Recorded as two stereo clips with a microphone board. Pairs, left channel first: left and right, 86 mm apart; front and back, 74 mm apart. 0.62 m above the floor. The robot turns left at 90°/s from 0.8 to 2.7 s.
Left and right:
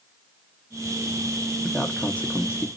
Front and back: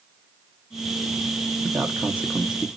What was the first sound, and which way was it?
A man speaking, 170° right.